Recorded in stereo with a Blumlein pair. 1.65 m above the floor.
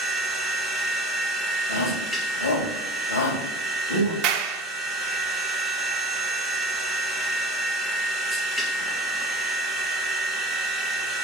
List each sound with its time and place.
0.0 s a machine running: 15° left, 1.6 m
1.7 s a shout: 65° left, 3 m
4.2 s a clap: 40° right, 0.9 m